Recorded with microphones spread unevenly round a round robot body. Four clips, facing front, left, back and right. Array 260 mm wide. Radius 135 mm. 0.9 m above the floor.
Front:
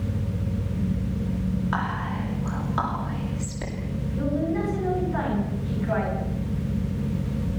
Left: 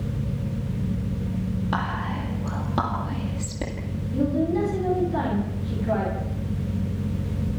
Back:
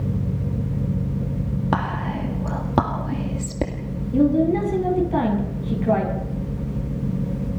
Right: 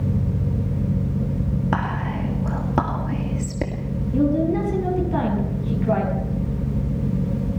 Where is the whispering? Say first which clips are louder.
Right 2 dB, back 4 dB; 160° right, 2.5 m.